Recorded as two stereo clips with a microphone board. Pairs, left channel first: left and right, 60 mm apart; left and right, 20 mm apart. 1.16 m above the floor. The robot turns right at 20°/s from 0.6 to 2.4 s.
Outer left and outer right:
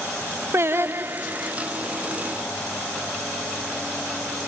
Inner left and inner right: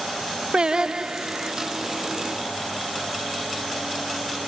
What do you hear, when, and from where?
0.5 s singing: 45° right (ahead or behind); by 1.5 s 30° right (ahead or behind)